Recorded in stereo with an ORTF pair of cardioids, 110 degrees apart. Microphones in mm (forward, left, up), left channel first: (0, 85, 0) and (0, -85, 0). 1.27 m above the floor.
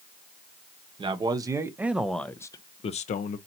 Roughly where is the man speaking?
Ahead right.